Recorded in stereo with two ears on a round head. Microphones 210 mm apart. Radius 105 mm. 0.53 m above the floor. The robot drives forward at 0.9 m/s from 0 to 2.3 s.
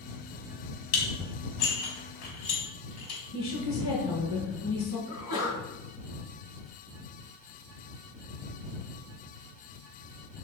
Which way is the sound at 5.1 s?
75° left (ahead or behind).